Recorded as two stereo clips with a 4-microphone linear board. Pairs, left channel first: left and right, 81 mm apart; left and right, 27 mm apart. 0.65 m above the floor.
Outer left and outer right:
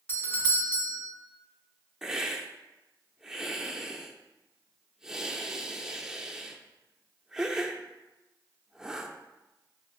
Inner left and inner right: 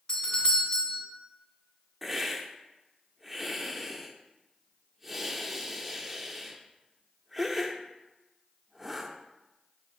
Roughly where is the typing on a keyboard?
No typing on a keyboard in this recording.